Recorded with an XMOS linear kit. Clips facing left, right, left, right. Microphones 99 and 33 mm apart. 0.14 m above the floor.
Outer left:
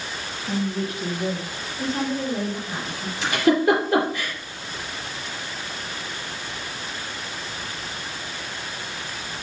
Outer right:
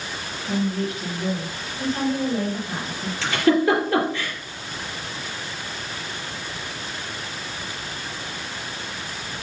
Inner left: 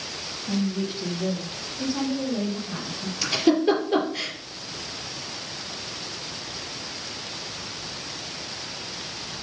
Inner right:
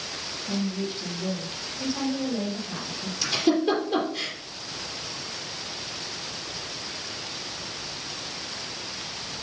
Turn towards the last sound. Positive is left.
turn(degrees=15)  # may be behind; listen again after turning